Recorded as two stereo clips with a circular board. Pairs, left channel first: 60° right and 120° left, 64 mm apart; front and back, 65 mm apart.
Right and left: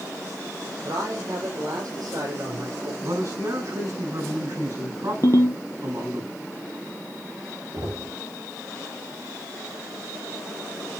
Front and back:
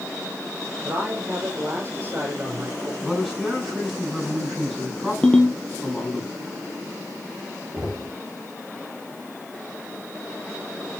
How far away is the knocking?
About 5.5 m.